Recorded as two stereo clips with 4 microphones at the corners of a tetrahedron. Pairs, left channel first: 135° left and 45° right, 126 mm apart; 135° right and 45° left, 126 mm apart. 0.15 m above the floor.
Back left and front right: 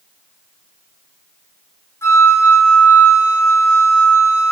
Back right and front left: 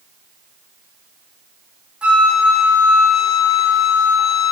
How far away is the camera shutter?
I don't hear a camera shutter.